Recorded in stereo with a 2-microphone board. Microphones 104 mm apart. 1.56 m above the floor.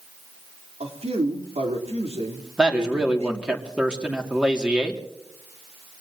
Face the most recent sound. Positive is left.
turn(degrees=-10)  # may be behind; listen again after turning